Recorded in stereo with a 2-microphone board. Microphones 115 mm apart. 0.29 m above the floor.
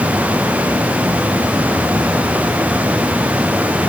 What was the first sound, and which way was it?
Only background noise.